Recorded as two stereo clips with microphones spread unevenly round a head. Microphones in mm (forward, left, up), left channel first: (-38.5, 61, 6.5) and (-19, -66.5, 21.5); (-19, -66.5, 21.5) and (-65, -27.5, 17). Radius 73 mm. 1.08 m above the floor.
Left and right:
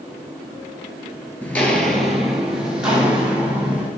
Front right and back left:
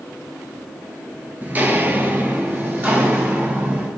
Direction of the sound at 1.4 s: 175° left.